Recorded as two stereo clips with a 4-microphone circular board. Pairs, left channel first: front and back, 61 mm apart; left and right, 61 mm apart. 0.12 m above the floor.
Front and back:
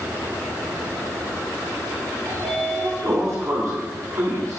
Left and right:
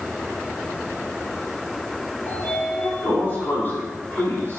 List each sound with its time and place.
2.3 s a sliding door: 150° left, 3 m